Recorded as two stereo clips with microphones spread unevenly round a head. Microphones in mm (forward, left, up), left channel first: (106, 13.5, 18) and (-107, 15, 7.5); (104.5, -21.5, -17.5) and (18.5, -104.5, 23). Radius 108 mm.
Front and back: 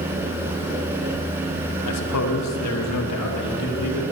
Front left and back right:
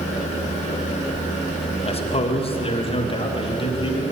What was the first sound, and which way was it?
A man speaking, 10° left.